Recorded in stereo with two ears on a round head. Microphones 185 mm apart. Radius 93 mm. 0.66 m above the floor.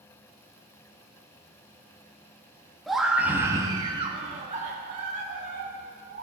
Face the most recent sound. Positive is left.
turn(degrees=-45)  # may be behind; listen again after turning